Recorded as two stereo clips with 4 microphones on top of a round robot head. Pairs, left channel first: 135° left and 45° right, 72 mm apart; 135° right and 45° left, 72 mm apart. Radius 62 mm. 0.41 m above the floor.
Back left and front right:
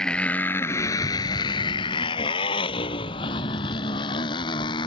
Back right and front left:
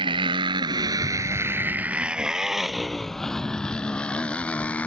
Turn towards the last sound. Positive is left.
turn(degrees=155)